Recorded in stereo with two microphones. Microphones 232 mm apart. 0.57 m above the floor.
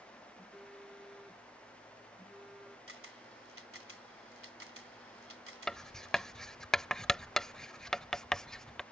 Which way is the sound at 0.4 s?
Centre (ahead or behind).